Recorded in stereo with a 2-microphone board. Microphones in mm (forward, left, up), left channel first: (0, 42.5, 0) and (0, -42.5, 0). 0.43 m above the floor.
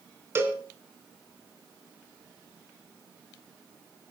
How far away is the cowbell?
About 3 m.